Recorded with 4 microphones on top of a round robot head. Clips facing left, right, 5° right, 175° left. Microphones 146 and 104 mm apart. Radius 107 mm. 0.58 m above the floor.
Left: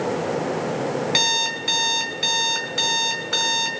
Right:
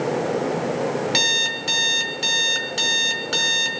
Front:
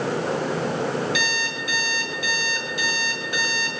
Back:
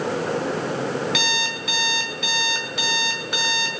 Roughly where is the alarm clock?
Behind right.